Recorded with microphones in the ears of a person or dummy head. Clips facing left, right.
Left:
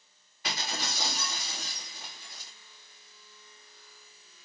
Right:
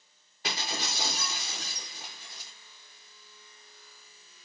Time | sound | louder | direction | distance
0.4 | breaking glass | right 1 dB | 20° right (ahead or behind) | 0.9 m